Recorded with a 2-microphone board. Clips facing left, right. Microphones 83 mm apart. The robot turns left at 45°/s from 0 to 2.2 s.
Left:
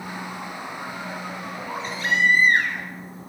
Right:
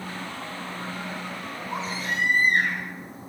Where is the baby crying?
65° left (ahead or behind), 1.2 m; by 2.9 s 80° left, 1.2 m.